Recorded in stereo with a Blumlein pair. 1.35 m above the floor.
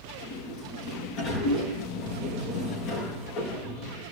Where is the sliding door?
30° left, 7.5 m.